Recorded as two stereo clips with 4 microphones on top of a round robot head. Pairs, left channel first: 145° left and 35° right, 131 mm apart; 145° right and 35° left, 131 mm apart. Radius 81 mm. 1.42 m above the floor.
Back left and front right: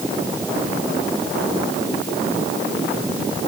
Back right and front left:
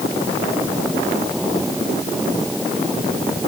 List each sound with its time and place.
Only background noise.